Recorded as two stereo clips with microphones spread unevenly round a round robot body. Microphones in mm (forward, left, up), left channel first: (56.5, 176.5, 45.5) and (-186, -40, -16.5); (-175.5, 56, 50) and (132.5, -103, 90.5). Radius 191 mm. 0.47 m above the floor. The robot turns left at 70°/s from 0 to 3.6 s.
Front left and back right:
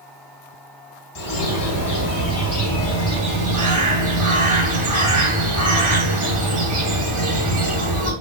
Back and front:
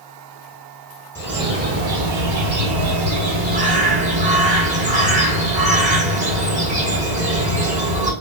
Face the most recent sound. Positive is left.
turn(degrees=-100)